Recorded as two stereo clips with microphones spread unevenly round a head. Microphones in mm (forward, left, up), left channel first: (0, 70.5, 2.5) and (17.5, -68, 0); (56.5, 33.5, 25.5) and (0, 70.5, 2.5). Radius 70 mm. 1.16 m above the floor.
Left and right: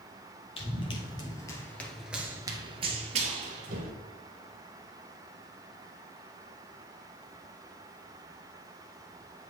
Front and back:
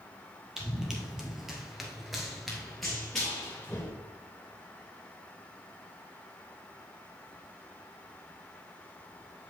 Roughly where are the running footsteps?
Ahead left.